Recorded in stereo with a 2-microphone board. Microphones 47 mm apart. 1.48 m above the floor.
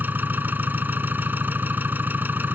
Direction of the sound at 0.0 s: 45° right (ahead or behind).